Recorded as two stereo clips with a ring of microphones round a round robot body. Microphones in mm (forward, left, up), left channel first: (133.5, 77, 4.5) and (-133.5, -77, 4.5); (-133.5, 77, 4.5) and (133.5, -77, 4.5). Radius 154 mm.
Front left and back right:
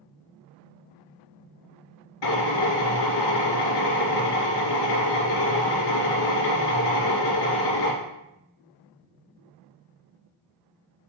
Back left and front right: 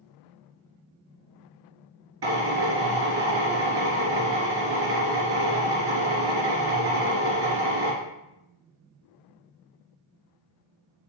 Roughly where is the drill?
Ahead.